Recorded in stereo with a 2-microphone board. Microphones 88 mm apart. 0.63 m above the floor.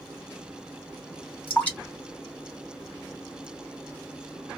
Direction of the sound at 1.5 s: 20° left (ahead or behind).